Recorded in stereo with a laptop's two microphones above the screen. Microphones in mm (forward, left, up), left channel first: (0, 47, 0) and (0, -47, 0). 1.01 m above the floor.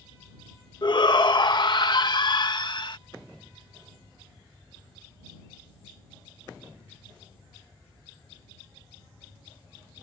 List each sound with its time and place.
0.8 s a shout: 50° left (ahead or behind)